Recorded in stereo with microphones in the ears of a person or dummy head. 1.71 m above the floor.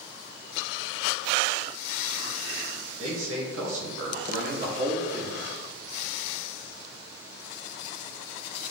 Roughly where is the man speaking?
Right.